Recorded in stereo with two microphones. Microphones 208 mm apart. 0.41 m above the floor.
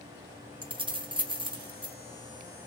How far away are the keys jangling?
About 0.7 m.